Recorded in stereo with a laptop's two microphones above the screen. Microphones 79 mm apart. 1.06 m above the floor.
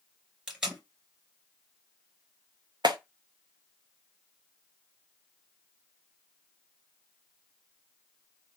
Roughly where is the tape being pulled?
Centre.